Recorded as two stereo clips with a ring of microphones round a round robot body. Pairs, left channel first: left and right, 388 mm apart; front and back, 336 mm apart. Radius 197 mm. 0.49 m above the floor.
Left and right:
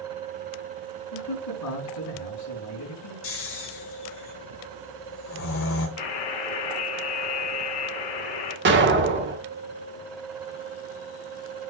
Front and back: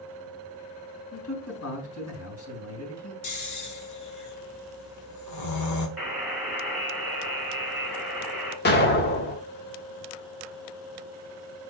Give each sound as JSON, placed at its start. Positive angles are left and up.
{"t": 1.1, "sound": "a man speaking", "azimuth_deg": 45, "distance_m": 3.5}
{"t": 3.2, "sound": "snoring", "azimuth_deg": 35, "distance_m": 1.6}
{"t": 6.0, "sound": "a buzzer", "azimuth_deg": 90, "distance_m": 3.0}
{"t": 8.7, "sound": "an explosion", "azimuth_deg": -45, "distance_m": 1.0}